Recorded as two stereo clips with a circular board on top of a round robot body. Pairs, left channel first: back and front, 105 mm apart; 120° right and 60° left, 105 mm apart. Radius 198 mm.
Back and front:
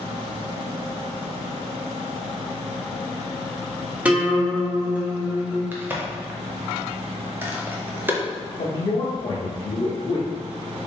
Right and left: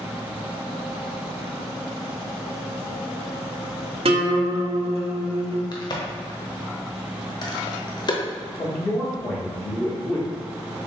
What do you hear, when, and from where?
4.0 s a guitar: 75° left, 1.3 m
5.7 s a crack: 70° right, 0.8 m
8.6 s a man speaking: 175° left, 1.6 m